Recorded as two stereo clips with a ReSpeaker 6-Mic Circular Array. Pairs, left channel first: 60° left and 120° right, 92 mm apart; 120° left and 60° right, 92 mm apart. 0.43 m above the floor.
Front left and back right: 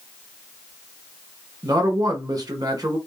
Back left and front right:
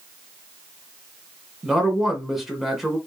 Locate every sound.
1.6 s a man speaking: 145° right, 1.2 m